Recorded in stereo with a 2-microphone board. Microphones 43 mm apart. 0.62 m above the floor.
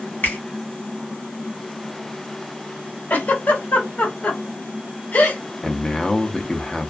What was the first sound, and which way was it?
A finger snap, 45° left (ahead or behind).